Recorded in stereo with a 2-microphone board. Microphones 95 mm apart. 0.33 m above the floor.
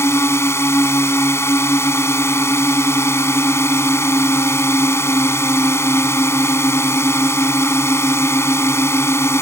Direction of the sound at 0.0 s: 30° left (ahead or behind).